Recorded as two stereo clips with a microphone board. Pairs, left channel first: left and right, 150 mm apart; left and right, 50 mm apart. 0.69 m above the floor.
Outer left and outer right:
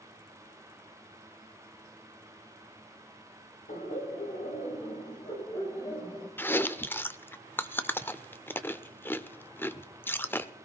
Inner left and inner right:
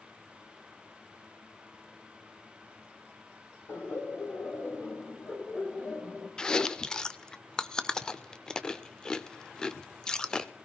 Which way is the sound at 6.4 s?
15° left (ahead or behind).